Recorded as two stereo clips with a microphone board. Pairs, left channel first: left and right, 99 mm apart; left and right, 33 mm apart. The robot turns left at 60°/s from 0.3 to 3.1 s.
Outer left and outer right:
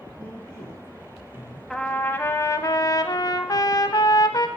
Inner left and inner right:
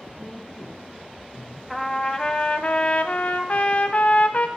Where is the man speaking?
170° right, 4.5 m; by 1.6 s 110° left, 4.5 m.